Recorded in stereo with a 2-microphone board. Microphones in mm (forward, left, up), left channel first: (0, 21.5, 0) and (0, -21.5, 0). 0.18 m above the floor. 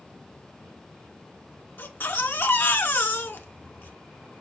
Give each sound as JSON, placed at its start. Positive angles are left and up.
{"t": 1.8, "sound": "a baby crying", "side_deg": 55, "distance_m": 0.8}